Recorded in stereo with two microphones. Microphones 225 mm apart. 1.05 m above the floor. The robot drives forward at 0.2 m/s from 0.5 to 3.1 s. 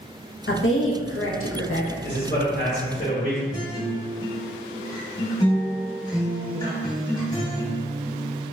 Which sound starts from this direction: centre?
A guitar, at 3.5 s.